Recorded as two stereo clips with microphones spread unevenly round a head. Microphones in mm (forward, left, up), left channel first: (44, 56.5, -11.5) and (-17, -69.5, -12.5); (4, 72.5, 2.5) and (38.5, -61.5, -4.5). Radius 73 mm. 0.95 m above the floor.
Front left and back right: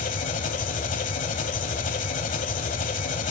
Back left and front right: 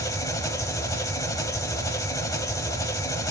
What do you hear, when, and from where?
0.0 s an engine running: 40° left, 1.5 m